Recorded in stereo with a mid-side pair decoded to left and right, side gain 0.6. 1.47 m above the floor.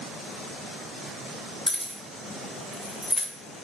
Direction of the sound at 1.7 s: 10° left.